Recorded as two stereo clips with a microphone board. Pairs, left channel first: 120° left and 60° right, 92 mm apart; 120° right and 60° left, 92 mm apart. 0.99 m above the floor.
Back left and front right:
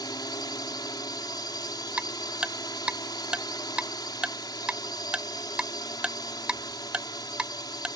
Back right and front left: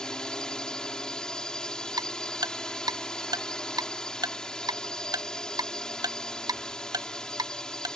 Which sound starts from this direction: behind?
A drone, at 0.0 s.